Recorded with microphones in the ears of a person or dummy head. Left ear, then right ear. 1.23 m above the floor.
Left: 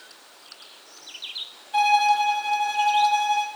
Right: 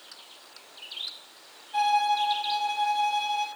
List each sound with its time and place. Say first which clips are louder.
1.7 s a violin: left 5 dB; 40° left (ahead or behind), 5.5 m